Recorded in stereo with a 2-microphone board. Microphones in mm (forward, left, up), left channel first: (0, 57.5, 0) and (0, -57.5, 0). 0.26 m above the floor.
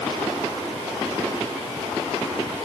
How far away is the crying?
No crying in this recording.